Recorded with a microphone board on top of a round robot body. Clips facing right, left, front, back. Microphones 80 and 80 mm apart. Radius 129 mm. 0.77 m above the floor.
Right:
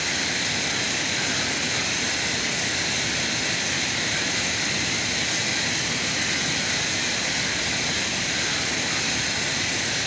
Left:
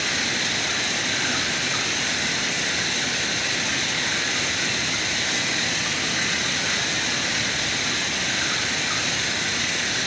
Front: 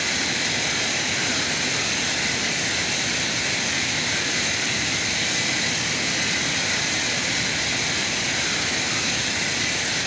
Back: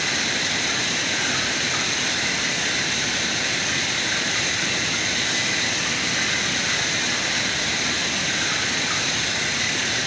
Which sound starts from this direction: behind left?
Running water, at 0.0 s.